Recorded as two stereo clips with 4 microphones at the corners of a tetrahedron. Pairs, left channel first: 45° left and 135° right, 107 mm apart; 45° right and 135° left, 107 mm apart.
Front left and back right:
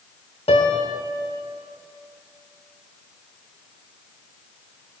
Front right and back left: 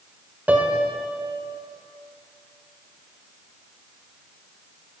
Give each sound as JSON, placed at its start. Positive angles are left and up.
{"t": 0.5, "sound": "a piano", "azimuth_deg": 60, "distance_m": 1.2}